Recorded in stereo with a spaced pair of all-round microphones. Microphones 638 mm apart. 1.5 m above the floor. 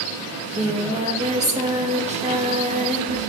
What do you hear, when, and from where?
0.3 s singing: 10° right (ahead or behind), 0.8 m